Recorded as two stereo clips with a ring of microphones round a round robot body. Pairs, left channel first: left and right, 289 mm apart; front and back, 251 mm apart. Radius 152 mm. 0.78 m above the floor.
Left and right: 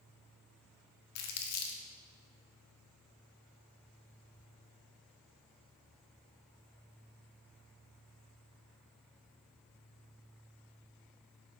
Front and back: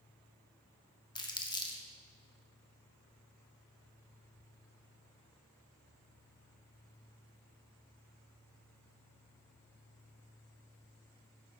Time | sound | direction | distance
1.1 | crumpling | 70° left | 1.6 m